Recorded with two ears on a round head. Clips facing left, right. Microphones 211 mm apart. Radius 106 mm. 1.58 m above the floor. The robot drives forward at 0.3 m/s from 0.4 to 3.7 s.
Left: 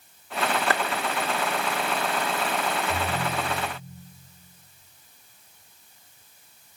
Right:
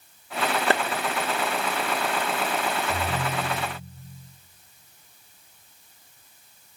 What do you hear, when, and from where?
0.7 s a clap: 25° right (ahead or behind), 1.3 m
2.9 s a ringtone: 15° right (ahead or behind), 5 m